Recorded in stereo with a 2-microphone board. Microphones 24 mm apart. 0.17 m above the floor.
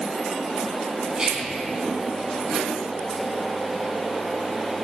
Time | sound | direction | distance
1.2 | whispering | 30° right (ahead or behind) | 1.3 m